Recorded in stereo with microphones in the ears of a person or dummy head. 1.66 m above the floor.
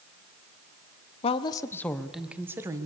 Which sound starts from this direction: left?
A woman speaking, at 1.2 s.